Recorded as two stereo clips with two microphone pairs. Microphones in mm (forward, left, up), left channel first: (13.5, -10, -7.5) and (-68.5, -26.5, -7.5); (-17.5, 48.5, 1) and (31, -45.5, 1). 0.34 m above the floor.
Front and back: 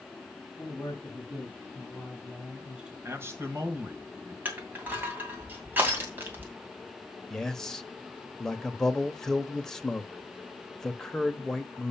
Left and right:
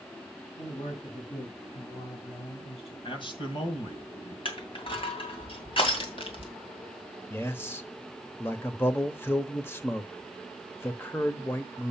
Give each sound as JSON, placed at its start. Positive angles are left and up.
{"t": 0.6, "sound": "a man speaking", "azimuth_deg": 85, "distance_m": 3.0}
{"t": 3.0, "sound": "a man speaking", "azimuth_deg": 140, "distance_m": 2.0}
{"t": 4.5, "sound": "crushing", "azimuth_deg": 130, "distance_m": 2.5}
{"t": 7.3, "sound": "a man speaking", "azimuth_deg": 90, "distance_m": 0.9}